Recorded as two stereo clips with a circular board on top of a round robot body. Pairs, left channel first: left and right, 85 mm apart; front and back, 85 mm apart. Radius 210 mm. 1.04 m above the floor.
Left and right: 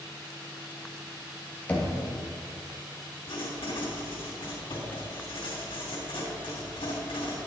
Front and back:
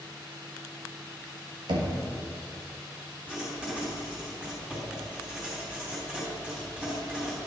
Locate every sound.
1.7 s knocking: 165° left, 1.4 m
3.3 s writing: 100° left, 3 m